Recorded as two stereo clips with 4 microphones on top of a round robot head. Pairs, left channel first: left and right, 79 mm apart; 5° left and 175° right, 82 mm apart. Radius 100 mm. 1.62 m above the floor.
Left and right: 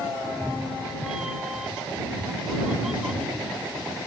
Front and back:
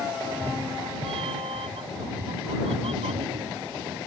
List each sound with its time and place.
0.2 s a cat meowing: 175° right